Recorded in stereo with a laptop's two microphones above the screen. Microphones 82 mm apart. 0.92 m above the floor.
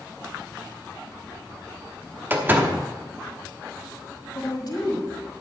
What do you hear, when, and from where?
2.3 s a door slam: 25° right (ahead or behind), 1.0 m
4.3 s a woman speaking: 55° left (ahead or behind), 1.8 m